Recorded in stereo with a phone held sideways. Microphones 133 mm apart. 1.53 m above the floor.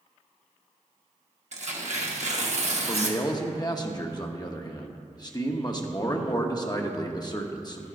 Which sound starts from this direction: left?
A man speaking, at 2.9 s.